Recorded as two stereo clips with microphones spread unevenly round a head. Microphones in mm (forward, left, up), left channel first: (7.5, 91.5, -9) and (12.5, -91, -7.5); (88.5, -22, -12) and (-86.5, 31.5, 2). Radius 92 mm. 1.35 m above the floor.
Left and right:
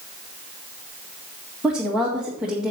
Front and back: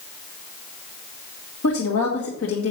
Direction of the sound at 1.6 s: 5° right.